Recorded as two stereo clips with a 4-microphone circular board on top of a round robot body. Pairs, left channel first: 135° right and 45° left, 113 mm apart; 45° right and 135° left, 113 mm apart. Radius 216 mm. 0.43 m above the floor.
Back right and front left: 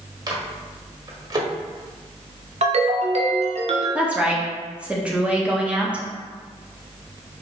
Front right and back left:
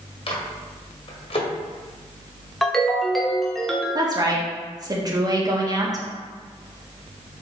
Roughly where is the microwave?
Ahead.